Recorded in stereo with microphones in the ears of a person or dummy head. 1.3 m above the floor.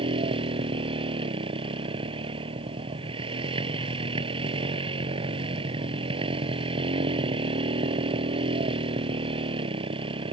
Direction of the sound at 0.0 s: 35° right (ahead or behind).